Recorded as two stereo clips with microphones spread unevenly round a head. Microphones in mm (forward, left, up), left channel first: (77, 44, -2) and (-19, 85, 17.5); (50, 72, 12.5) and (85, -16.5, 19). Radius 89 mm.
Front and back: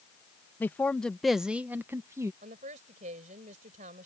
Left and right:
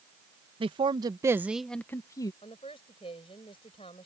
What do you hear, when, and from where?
0.6 s a man speaking: 90° right; by 2.3 s 90° left
2.4 s a woman speaking: 170° left